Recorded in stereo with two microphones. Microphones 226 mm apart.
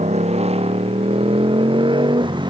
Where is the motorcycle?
30° right (ahead or behind); by 2.5 s 20° right (ahead or behind).